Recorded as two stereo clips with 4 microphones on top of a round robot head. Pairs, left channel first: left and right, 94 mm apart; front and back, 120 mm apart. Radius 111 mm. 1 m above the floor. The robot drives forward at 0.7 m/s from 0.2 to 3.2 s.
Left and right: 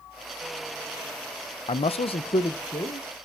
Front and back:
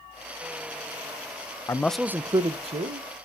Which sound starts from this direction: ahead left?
A man speaking, at 1.7 s.